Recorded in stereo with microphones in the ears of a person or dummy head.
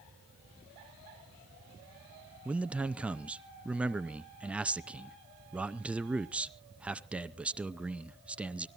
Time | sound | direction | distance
2.5 | a man speaking | 5° right (ahead or behind) | 0.5 m